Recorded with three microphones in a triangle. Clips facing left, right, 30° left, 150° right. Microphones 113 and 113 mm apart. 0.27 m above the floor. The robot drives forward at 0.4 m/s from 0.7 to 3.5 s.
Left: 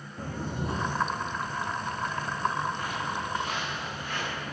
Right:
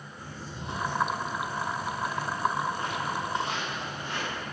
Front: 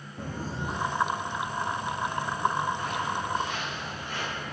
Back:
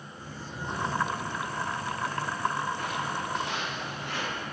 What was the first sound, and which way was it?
Footsteps, 55° left.